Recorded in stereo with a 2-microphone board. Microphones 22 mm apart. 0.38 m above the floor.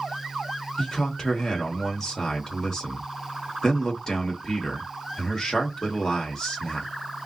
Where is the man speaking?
30° left (ahead or behind), 1.0 m.